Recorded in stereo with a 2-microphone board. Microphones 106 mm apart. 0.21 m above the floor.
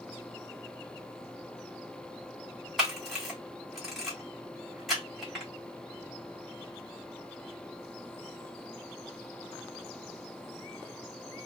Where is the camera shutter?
Centre (ahead or behind), 2 m.